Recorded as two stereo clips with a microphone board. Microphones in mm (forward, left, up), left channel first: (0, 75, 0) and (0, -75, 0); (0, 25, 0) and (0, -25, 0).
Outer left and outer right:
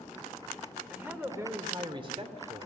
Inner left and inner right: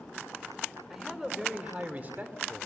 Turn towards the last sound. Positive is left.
turn(degrees=-50)  # may be behind; listen again after turning